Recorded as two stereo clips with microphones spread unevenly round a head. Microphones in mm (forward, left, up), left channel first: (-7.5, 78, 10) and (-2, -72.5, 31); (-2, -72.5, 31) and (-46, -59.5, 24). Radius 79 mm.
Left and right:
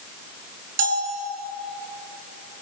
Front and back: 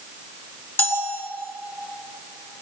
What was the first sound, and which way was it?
A bell, 50° right.